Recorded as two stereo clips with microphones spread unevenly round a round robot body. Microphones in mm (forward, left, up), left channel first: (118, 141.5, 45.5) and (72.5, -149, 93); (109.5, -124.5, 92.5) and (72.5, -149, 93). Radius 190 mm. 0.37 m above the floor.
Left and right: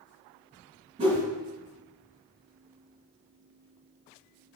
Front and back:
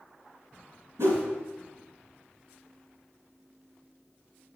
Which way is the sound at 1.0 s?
170° right.